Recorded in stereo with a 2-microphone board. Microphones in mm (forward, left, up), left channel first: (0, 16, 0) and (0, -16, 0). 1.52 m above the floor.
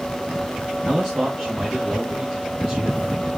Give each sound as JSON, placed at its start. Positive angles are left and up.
{"t": 0.8, "sound": "a man speaking", "side_deg": 0, "distance_m": 2.0}